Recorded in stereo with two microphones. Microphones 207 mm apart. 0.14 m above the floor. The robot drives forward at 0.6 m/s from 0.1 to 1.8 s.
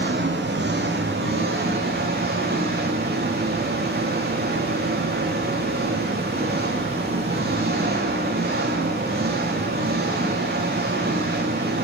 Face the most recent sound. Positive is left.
turn(degrees=-50)  # may be behind; listen again after turning